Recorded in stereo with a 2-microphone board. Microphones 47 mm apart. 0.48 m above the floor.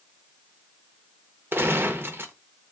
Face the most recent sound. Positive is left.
turn(degrees=-55)  # may be behind; listen again after turning